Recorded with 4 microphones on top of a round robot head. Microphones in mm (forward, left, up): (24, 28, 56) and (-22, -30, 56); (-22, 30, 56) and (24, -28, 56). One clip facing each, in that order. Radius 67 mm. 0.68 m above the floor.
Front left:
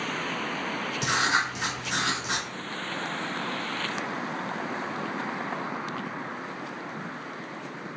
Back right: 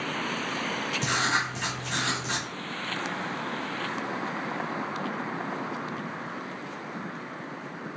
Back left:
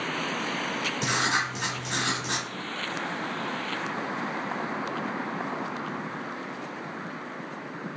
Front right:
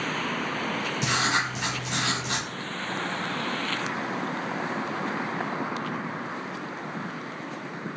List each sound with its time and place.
1.0 s writing: 125° left, 1.8 m